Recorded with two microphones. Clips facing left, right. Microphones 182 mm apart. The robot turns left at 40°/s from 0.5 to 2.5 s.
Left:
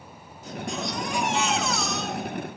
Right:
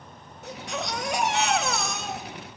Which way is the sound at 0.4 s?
70° right.